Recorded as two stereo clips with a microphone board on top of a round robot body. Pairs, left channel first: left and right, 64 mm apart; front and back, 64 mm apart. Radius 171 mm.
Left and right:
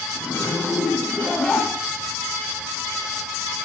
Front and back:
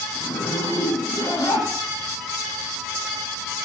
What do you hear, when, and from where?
0.1 s a zipper: straight ahead, 1.4 m